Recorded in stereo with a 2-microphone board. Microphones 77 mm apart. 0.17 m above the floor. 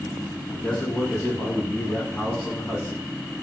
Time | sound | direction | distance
0.5 | a man speaking | 15° left (ahead or behind) | 1.0 m